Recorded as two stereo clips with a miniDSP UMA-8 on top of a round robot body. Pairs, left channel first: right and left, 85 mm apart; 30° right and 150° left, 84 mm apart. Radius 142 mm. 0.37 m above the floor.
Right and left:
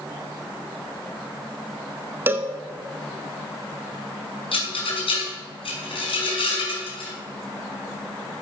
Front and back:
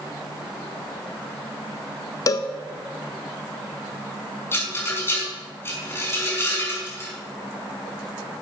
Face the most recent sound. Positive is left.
turn(degrees=-90)